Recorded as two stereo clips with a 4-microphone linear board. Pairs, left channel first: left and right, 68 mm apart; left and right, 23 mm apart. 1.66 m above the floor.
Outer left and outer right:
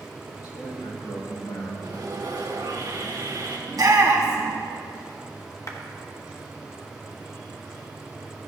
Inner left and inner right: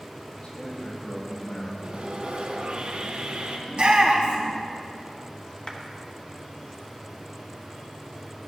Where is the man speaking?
75° left (ahead or behind), 3.5 m; by 1.7 s 70° left (ahead or behind), 3 m.